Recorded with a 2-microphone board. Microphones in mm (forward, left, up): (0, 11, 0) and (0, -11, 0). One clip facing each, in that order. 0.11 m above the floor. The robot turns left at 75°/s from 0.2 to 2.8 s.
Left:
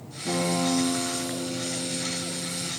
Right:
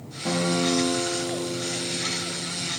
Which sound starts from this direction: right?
A guitar, at 0.2 s.